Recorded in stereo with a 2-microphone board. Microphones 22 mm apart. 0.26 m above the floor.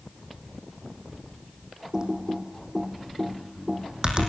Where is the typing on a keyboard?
35° right (ahead or behind), 4 m.